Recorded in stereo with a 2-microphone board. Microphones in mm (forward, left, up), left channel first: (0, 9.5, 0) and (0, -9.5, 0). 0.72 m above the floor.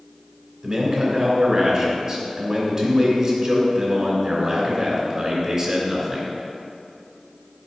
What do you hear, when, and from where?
0.6 s a man speaking: 30° right (ahead or behind), 2.5 m